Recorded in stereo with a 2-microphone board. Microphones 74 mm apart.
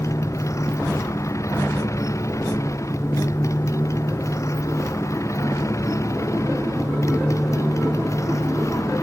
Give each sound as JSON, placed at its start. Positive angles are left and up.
{"t": 0.0, "sound": "a motorcycle", "side_deg": 45}